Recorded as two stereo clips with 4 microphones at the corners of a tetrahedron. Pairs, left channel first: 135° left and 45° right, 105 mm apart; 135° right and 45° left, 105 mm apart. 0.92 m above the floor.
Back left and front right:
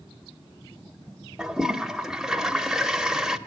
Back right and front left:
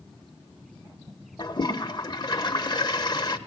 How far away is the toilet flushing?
About 0.8 m.